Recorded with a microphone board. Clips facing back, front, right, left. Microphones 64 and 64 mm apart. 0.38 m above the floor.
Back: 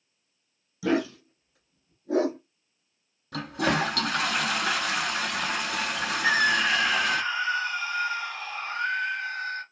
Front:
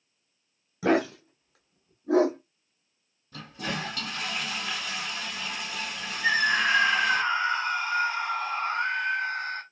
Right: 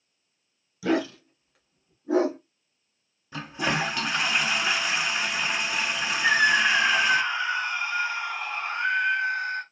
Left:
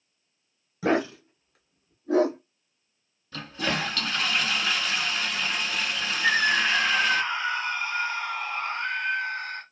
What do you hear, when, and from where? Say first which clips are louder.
0.8 s a dog barking: front 2 dB, left 1 dB; 45° left, 0.8 m; by 2.4 s 15° right, 2.5 m
3.3 s a toilet flushing: back 8 dB, right 2 dB; 165° right, 0.5 m
6.2 s a scream: even, right 2 dB; 10° right, 2.5 m